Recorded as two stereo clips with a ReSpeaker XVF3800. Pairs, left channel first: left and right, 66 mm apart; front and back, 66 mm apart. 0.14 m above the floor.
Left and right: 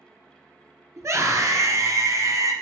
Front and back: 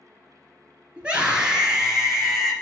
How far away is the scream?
About 2.5 m.